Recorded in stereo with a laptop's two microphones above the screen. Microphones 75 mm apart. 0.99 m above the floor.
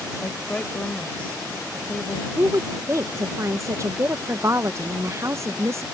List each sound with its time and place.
0.2 s a woman speaking: 20° left (ahead or behind)
2.4 s a woman speaking: 40° right (ahead or behind)